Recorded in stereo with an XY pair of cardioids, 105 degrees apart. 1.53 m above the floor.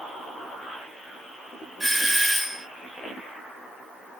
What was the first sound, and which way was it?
A doorbell, 5° left.